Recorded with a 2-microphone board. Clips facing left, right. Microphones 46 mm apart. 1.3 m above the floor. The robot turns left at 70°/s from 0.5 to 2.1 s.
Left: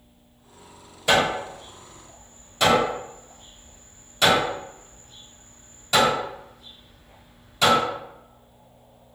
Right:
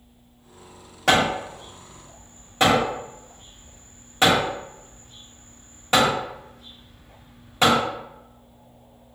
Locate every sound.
1.1 s hammering: 75° right (ahead or behind), 1.9 m; by 7.8 s 35° right (ahead or behind), 1.9 m